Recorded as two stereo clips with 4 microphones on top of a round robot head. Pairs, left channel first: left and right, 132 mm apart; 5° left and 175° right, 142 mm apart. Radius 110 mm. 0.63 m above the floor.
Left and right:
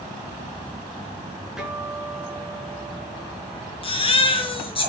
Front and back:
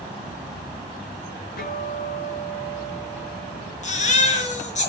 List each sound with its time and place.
1.6 s a guitar: 5° right, 9 m
3.8 s a baby crying: 40° left, 5 m